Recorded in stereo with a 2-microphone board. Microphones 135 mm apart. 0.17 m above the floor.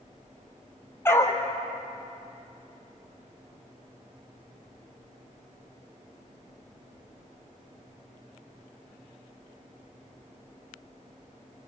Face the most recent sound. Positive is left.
turn(degrees=20)  # may be behind; listen again after turning